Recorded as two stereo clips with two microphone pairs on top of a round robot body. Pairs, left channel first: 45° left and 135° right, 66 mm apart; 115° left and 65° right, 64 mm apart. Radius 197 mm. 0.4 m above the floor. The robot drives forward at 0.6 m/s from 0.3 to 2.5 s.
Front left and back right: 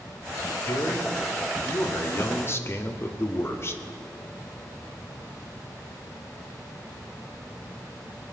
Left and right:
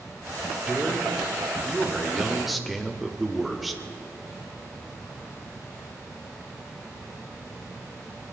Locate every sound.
0.6 s a man speaking: 10° left, 2.5 m; by 3.8 s 15° left, 1.7 m